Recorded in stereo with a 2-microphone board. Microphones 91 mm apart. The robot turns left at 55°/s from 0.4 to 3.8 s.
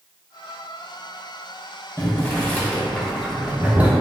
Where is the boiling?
25° left (ahead or behind), 0.6 m; by 3.9 s 15° right (ahead or behind), 0.6 m.